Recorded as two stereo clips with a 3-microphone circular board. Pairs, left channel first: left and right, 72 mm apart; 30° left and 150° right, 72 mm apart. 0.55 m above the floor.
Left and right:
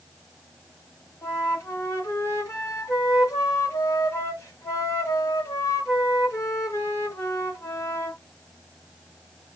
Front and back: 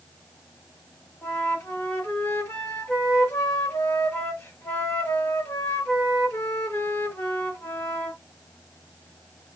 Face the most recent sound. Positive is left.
turn(degrees=65)